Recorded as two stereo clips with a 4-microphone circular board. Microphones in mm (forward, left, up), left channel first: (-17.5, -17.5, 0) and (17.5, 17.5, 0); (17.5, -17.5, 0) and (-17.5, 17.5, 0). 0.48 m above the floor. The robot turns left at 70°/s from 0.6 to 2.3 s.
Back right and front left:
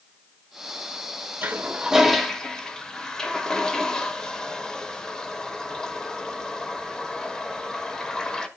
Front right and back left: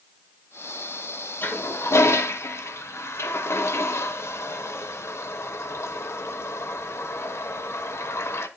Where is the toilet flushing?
Straight ahead, 1.0 m; by 8.5 s 60° right, 1.0 m.